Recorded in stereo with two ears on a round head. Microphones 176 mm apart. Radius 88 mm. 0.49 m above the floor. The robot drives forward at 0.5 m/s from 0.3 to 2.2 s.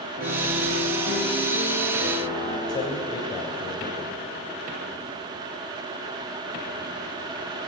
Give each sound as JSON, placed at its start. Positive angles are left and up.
{"t": 0.2, "sound": "a piano", "side_deg": -55, "distance_m": 4.0}
{"t": 2.7, "sound": "a man speaking", "side_deg": 25, "distance_m": 2.0}